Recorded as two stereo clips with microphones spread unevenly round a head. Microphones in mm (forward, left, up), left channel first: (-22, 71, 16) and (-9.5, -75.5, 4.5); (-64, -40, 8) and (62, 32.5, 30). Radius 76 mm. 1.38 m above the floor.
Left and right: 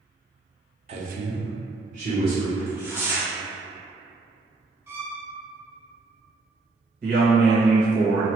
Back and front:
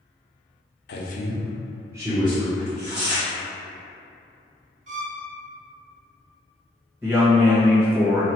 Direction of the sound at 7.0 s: 45° right.